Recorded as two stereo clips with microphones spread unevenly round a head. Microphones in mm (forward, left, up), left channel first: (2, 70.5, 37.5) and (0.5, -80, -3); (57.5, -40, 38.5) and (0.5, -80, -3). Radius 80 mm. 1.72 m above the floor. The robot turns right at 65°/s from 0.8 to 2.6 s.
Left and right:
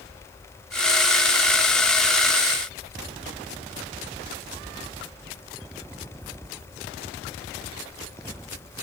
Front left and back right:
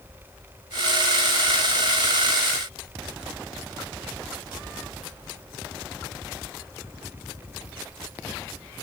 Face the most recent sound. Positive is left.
No sound to turn to.